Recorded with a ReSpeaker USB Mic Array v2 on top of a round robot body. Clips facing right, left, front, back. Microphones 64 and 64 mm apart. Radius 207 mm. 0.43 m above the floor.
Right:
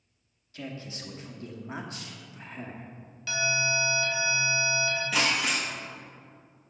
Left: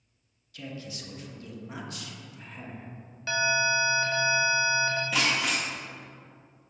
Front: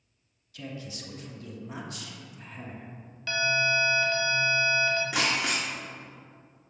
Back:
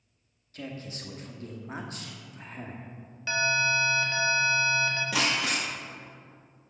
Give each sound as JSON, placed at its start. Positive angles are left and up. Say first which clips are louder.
{"t": 0.5, "sound": "a man speaking", "louder": "right 1 dB, back 1 dB", "azimuth_deg": -140, "distance_m": 1.1}
{"t": 3.3, "sound": "an alarm", "louder": "left 3 dB, even", "azimuth_deg": 120, "distance_m": 1.7}
{"t": 5.1, "sound": "breaking glass", "louder": "even, even", "azimuth_deg": -175, "distance_m": 0.8}